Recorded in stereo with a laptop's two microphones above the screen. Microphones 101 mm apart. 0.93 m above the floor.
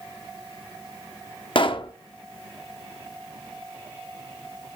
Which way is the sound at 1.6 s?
55° left (ahead or behind).